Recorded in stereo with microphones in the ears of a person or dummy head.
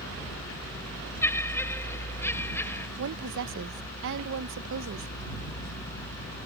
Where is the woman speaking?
65° right (ahead or behind).